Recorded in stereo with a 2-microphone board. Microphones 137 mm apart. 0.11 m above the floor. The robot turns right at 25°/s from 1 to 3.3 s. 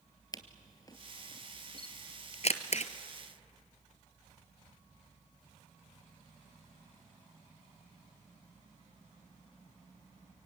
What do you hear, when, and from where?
0.3 s a camera shutter: 30° left (ahead or behind), 1.1 m; by 2.9 s 55° left (ahead or behind), 1.1 m